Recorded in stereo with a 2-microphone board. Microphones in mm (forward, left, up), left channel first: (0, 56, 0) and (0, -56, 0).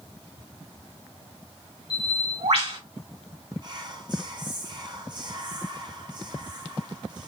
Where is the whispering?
40° right (ahead or behind), 0.9 m.